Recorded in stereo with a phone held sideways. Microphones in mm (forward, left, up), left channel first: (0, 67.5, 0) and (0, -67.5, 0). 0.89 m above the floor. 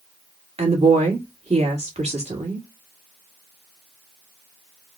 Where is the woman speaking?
50° right (ahead or behind), 1.5 m.